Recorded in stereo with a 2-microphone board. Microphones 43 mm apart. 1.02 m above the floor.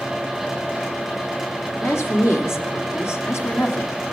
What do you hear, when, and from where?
1.8 s a woman speaking: 80° left, 3 m